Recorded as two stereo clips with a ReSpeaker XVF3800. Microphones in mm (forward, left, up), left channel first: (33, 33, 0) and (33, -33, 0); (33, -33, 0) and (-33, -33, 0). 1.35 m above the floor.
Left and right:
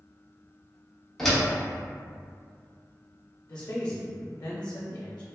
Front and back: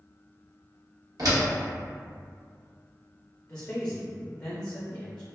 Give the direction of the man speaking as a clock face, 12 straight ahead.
10 o'clock.